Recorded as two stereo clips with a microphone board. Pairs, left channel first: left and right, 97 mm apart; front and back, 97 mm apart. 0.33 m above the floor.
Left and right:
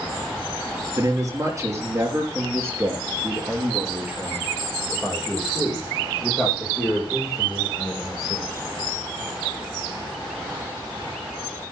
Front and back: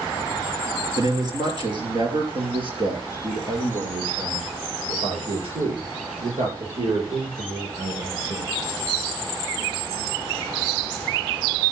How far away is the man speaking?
About 5 m.